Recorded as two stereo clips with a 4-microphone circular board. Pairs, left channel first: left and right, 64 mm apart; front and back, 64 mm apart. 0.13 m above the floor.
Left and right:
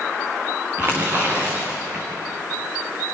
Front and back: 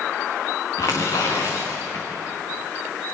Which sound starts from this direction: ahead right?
Tearing paper, at 0.8 s.